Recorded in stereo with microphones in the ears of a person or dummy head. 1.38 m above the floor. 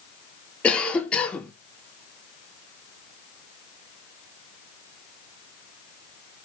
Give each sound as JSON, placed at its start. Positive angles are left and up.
{"t": 0.6, "sound": "a cough", "side_deg": 5, "distance_m": 1.0}